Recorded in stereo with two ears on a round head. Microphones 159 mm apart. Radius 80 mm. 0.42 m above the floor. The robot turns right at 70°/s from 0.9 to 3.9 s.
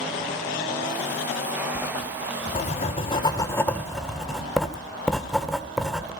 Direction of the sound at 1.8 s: 25° left.